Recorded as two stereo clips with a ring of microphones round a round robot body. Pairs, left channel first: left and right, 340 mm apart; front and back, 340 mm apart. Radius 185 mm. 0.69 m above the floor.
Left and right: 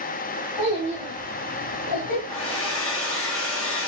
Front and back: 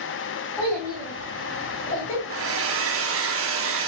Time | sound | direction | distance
0.6 | a child speaking | 80° left | 4 m
2.3 | a hair dryer | 135° left | 1.2 m